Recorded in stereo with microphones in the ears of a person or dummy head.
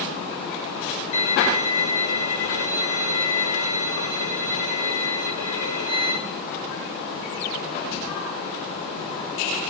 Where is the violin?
70° left (ahead or behind), 3.5 m.